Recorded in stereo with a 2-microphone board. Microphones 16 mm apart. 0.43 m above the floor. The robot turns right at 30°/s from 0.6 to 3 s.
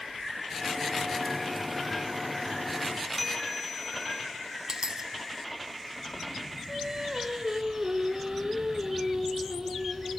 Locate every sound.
3.2 s a bell: 5° left (ahead or behind), 2.5 m
4.7 s a dropped coin: 45° right (ahead or behind), 1.0 m
6.7 s singing: 40° right (ahead or behind), 4 m